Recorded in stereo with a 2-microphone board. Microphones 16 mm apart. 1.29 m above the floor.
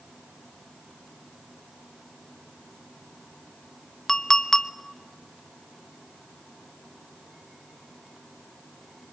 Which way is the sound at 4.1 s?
40° left (ahead or behind).